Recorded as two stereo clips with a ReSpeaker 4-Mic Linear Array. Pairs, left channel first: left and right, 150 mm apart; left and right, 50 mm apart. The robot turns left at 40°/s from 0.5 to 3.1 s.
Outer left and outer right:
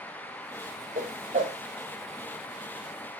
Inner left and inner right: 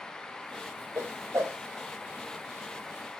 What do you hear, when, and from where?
0.9 s a whoosh: 70° right (ahead or behind), 0.7 m; by 1.6 s 50° right (ahead or behind), 0.7 m